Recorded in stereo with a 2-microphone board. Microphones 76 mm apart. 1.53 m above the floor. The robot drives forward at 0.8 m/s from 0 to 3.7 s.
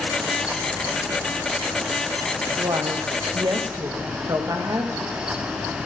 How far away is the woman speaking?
About 0.8 m.